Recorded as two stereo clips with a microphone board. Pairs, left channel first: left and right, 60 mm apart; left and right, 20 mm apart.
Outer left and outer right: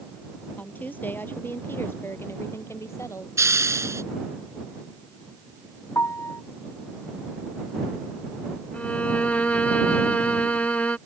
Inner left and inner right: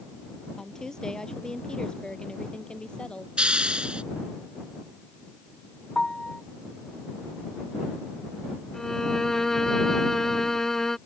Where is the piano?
50° left (ahead or behind).